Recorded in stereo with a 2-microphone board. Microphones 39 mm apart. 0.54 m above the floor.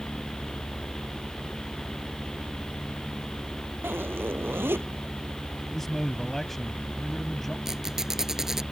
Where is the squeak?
10° right (ahead or behind).